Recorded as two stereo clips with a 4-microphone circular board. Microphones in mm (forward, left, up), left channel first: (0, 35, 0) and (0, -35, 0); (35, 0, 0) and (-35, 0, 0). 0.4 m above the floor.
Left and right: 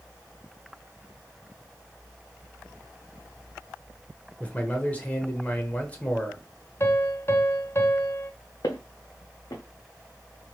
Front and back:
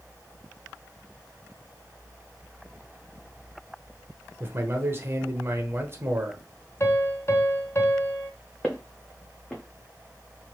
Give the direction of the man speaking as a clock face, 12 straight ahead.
7 o'clock.